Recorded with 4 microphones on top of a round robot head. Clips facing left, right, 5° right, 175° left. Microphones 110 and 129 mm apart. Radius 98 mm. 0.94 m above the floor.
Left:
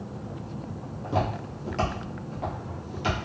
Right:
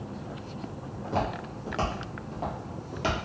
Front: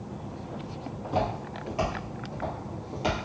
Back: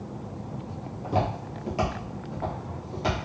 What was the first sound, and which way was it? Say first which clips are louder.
Footsteps: left 2 dB, back 1 dB; 160° left.